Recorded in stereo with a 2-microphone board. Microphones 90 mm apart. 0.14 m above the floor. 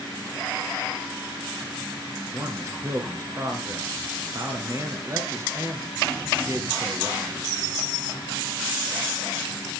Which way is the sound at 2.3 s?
30° right (ahead or behind).